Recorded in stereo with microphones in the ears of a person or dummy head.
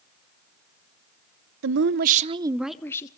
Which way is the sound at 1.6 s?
65° right (ahead or behind).